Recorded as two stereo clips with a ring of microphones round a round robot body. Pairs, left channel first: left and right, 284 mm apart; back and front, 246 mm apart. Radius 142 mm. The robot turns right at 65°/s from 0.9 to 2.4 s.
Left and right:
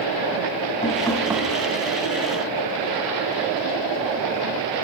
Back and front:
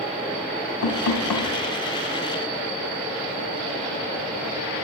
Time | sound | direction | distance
0.8 | knocking | 160° left | 3.5 m